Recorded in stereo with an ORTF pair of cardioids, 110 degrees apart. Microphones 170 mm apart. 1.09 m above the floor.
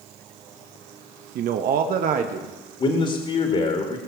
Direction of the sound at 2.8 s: 40° left.